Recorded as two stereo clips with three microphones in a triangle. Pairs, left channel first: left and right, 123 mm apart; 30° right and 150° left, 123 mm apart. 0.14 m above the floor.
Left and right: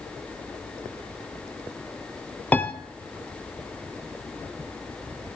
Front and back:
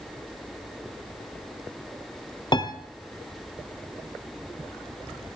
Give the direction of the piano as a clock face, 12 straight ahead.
12 o'clock.